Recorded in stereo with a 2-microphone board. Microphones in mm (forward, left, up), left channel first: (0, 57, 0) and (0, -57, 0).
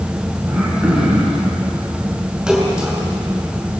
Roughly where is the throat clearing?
Centre.